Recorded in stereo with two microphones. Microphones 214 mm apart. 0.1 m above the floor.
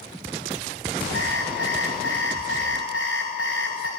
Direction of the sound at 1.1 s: 70° left (ahead or behind).